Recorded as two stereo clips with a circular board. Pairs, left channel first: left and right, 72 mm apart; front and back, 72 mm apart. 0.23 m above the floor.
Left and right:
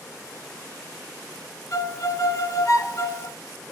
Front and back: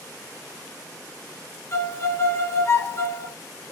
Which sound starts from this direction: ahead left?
A violin, at 1.7 s.